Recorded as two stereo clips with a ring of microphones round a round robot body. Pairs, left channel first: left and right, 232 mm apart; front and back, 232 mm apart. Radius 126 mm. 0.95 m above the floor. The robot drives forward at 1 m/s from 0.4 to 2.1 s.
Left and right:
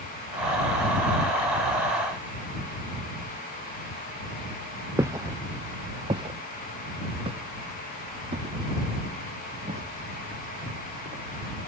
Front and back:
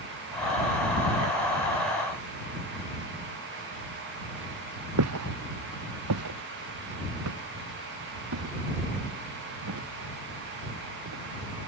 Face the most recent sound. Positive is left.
turn(degrees=-155)